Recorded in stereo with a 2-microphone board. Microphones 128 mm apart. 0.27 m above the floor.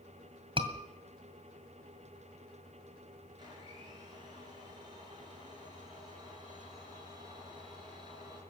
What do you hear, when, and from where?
0.6 s a scream: 40° right (ahead or behind), 1.8 m
3.4 s a blender: 35° right (ahead or behind), 5.5 m